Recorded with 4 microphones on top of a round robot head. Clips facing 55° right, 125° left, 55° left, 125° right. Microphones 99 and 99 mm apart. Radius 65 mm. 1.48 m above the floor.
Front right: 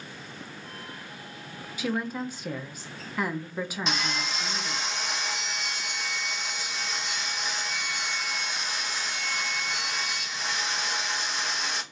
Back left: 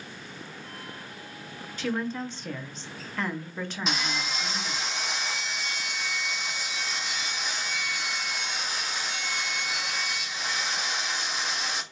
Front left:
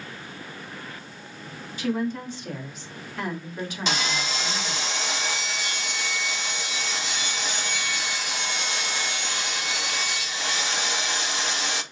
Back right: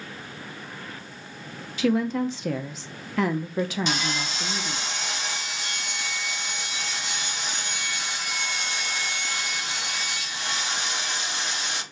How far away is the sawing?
About 0.5 m.